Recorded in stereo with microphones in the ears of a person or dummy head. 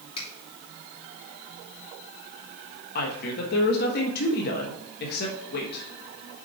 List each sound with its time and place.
0.2 s a finger snap: 35° left (ahead or behind), 3 m
3.0 s a woman speaking: 55° left (ahead or behind), 1.3 m